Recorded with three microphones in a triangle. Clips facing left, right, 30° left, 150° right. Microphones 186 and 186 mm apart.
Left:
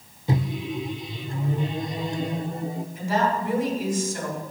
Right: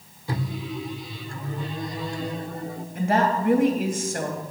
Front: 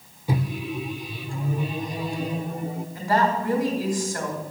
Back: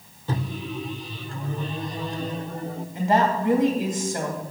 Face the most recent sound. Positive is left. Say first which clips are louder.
# right 3 dB, back 2 dB
turn(degrees=-85)